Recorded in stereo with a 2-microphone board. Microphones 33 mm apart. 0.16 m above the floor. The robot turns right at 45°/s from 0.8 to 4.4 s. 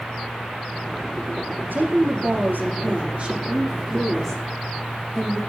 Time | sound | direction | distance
1.7 | a woman speaking | 105° right | 6 m